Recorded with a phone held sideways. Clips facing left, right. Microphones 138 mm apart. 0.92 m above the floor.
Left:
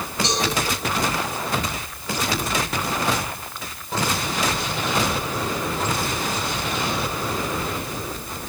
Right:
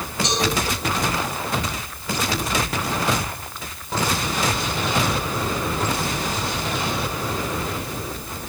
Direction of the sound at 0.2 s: 30° left (ahead or behind).